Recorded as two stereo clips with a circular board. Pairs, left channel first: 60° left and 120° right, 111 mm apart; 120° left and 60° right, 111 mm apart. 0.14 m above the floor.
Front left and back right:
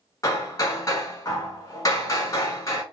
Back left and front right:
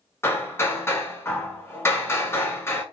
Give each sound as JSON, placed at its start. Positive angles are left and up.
{"t": 0.2, "sound": "hammering", "azimuth_deg": 70, "distance_m": 0.8}